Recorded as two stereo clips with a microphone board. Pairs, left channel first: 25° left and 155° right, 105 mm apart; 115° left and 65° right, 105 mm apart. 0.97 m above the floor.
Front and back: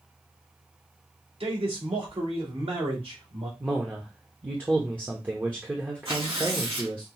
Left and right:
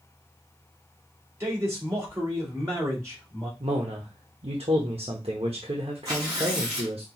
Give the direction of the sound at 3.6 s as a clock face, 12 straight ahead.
3 o'clock.